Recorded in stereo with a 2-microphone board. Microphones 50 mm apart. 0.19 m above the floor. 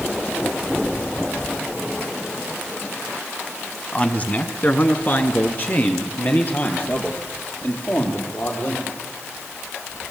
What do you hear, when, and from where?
3.9 s a man speaking: 25° left (ahead or behind), 1.7 m; by 8.9 s 45° left (ahead or behind), 8.5 m